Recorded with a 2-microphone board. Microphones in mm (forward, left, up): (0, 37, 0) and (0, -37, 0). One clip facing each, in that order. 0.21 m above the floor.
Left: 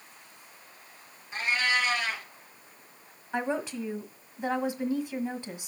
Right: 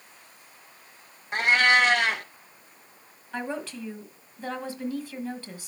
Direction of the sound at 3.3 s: 20° left (ahead or behind).